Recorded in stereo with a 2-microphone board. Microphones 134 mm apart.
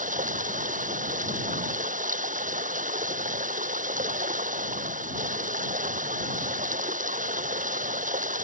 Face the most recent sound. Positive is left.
turn(degrees=-80)